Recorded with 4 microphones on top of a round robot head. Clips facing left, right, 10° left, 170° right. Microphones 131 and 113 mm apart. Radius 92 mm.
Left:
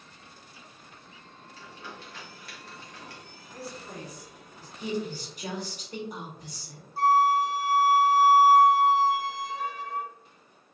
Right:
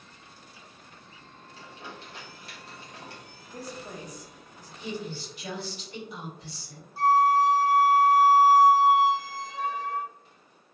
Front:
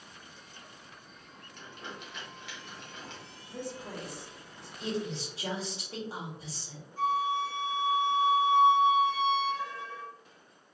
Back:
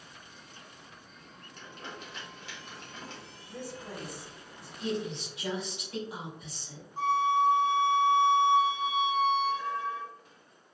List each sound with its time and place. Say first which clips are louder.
1.6 s crumpling: right 1 dB, even; 140° right, 1.4 m
3.5 s a woman speaking: right 1 dB, front 1 dB; 30° right, 1.3 m
4.8 s a woman speaking: left 4 dB, back 1 dB; 60° left, 1.7 m
7.0 s a flute: right 1 dB, back 3 dB; 95° right, 0.7 m